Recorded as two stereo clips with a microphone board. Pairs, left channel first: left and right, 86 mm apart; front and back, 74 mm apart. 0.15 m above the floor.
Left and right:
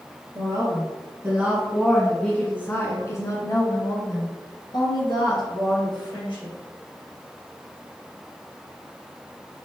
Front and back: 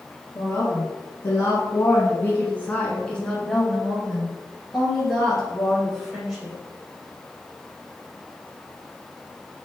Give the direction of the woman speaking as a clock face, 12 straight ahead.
1 o'clock.